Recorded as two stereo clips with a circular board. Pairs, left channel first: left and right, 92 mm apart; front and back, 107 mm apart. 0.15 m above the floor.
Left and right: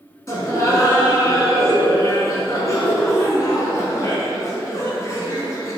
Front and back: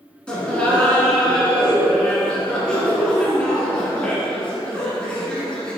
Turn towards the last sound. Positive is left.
turn(degrees=75)